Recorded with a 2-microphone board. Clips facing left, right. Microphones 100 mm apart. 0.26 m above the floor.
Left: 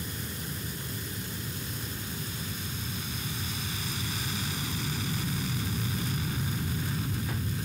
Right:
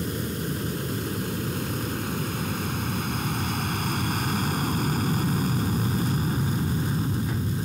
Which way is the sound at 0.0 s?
60° right (ahead or behind).